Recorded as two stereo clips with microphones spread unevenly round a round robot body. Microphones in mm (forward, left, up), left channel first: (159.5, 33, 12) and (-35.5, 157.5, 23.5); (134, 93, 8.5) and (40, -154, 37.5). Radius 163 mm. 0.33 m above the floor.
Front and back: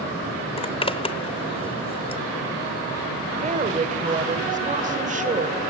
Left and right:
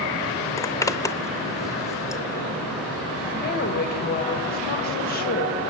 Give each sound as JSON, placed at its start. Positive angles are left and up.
{"t": 0.6, "sound": "a zipper", "azimuth_deg": 10, "distance_m": 0.8}
{"t": 3.3, "sound": "a woman speaking", "azimuth_deg": 100, "distance_m": 1.5}